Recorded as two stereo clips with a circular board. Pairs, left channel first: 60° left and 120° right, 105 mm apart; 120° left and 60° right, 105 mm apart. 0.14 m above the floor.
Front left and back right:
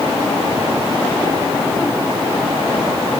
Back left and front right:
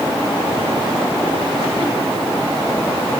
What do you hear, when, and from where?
Only background noise.